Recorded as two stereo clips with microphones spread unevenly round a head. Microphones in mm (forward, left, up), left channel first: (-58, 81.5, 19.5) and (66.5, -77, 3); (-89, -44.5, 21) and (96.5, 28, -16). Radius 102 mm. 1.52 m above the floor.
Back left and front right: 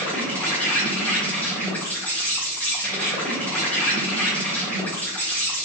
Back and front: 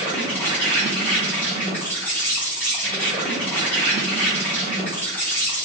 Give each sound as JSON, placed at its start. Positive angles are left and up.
{"t": 0.0, "sound": "an insect", "azimuth_deg": -175, "distance_m": 1.1}